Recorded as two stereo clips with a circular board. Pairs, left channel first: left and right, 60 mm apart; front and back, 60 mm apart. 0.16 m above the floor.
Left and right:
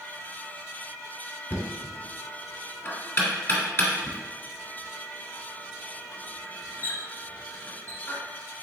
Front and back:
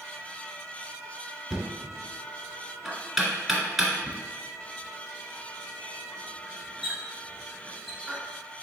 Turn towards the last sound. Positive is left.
turn(degrees=95)